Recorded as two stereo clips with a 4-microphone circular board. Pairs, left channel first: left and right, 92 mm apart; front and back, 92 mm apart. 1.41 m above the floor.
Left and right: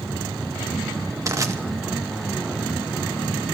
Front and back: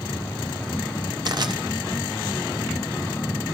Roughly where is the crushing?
Behind right.